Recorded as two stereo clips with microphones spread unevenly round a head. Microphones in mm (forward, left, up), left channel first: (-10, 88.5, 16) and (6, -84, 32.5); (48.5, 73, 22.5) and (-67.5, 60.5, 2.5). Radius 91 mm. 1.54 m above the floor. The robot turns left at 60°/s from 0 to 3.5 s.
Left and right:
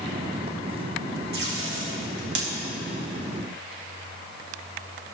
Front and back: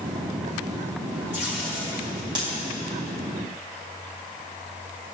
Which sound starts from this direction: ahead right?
Tape being pulled, at 1.3 s.